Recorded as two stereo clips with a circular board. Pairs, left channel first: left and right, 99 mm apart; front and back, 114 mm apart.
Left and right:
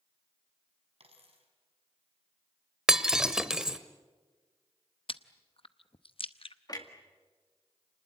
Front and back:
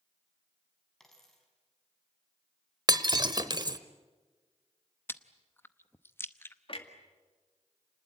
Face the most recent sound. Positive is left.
turn(degrees=40)